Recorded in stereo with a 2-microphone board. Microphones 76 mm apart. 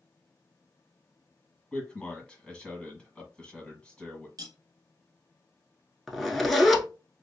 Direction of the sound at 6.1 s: Centre (ahead or behind).